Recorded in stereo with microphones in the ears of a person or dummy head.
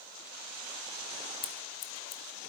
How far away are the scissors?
About 0.6 m.